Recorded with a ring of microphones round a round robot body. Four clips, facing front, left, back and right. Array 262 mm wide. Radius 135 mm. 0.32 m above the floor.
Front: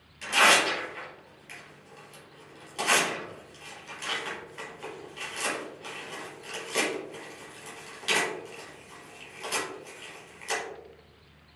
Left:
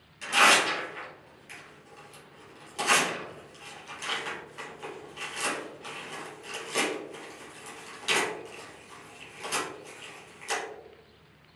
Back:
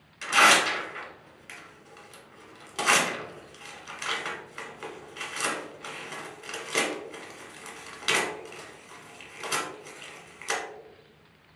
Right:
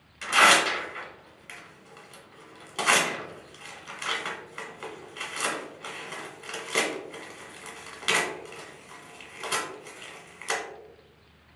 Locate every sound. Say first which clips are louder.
0.2 s tearing paper: right 2 dB, back 2 dB; 125° right, 1.2 m